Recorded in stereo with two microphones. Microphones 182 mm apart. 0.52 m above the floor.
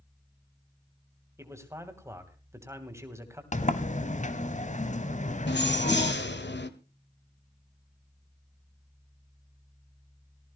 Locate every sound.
1.4 s a man speaking: 15° right (ahead or behind), 2.5 m
3.5 s a sliding door: 40° left (ahead or behind), 1.1 m
5.5 s keys jangling: 75° left (ahead or behind), 1.4 m